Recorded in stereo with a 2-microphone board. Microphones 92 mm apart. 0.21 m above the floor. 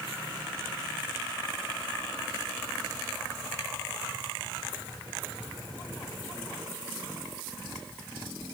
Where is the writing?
I don't hear writing.